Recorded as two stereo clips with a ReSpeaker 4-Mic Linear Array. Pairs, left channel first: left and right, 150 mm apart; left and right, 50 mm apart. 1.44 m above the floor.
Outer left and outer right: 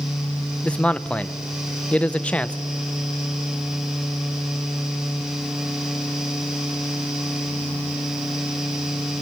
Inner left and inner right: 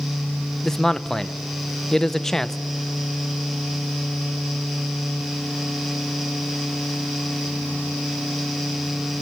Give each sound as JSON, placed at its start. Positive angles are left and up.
{"t": 0.6, "sound": "a man speaking", "side_deg": 10, "distance_m": 0.6}